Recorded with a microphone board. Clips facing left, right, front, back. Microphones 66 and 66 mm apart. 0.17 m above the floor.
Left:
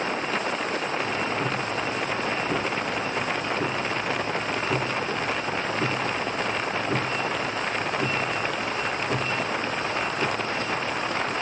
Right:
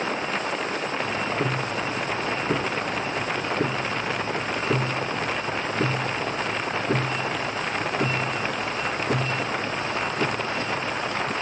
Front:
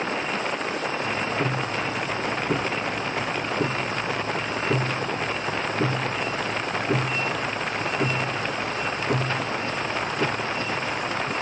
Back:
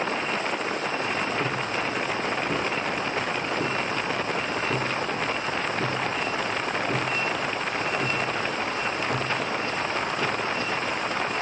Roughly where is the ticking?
Ahead right.